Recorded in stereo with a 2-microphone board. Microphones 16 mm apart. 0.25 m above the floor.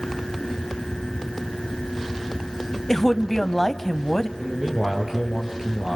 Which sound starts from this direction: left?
A woman speaking, at 2.9 s.